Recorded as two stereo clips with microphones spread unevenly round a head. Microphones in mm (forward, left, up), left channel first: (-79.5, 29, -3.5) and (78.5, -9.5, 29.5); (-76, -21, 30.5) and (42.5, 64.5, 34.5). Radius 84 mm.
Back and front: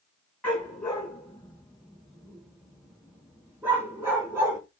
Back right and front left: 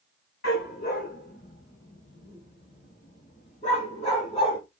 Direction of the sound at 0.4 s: 110° right.